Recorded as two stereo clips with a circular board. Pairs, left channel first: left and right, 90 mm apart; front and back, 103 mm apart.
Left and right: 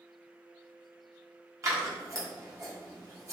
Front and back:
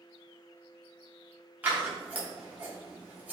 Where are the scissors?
115° right, 0.9 m.